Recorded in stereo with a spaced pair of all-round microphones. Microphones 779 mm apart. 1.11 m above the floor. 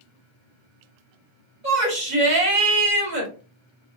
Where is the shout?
65° right (ahead or behind), 1.6 m.